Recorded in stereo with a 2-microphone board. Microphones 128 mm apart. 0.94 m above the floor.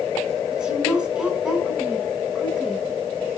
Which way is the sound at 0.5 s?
10° right (ahead or behind).